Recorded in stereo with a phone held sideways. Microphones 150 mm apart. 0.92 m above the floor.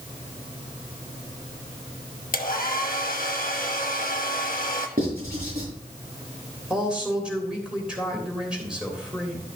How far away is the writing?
About 5 m.